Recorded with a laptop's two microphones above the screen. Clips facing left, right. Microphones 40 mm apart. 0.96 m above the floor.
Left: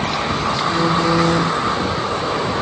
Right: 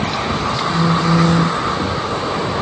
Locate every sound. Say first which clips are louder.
0.7 s a phone buzzing: right 1 dB; 40° left (ahead or behind), 0.6 m